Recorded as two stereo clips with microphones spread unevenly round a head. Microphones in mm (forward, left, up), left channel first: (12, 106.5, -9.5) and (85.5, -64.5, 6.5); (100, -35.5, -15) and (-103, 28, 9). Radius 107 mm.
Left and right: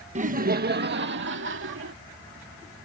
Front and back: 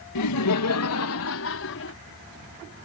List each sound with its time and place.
0.1 s laughter: 15° right; by 1.9 s 50° right